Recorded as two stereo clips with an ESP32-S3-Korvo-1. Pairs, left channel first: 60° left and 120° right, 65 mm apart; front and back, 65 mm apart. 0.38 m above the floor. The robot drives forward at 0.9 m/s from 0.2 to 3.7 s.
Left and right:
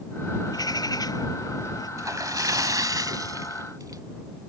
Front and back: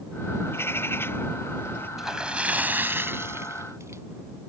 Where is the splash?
95° right; by 4.0 s 140° right.